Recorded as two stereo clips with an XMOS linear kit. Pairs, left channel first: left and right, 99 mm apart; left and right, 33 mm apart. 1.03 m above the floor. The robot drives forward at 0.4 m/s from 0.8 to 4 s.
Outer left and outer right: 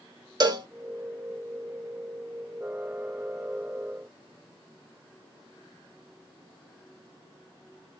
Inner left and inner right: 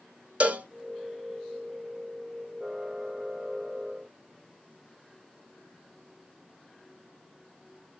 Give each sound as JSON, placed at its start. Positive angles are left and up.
{"t": 0.4, "sound": "a cowbell", "side_deg": -40, "distance_m": 1.1}